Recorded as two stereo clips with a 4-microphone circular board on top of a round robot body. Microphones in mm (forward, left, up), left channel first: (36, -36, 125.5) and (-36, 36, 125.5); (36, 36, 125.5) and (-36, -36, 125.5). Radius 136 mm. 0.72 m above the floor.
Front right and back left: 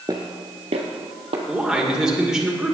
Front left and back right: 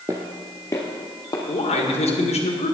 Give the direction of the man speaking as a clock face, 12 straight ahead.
10 o'clock.